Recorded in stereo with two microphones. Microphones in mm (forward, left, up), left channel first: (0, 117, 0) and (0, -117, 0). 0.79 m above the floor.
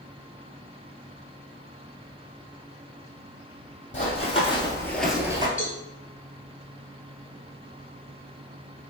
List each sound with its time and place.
3.9 s running footsteps: 30° left (ahead or behind), 1.5 m; by 5.5 s 20° right (ahead or behind), 0.8 m
5.6 s a cowbell: 60° left (ahead or behind), 1.2 m